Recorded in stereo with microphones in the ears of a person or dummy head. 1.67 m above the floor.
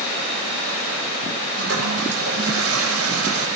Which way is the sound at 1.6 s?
85° right.